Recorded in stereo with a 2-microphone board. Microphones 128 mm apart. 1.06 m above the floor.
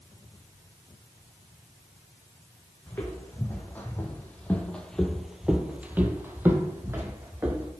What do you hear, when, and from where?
2.9 s footsteps: 15° left (ahead or behind), 2.5 m; by 7.7 s 20° right (ahead or behind), 2.5 m